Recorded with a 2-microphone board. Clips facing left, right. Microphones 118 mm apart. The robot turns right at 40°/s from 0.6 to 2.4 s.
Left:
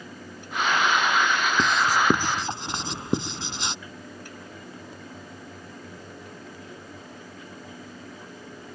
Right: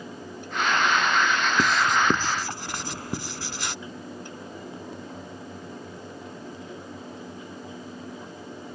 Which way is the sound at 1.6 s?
10° right (ahead or behind).